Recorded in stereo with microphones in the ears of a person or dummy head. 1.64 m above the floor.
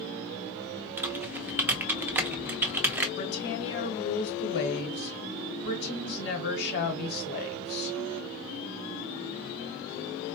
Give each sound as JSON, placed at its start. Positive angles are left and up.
{"t": 1.0, "sound": "typing on a keyboard", "side_deg": -15, "distance_m": 0.6}
{"t": 3.2, "sound": "a woman speaking", "side_deg": 55, "distance_m": 1.0}